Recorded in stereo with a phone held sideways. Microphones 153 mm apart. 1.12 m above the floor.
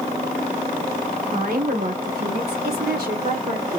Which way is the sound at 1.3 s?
70° right (ahead or behind).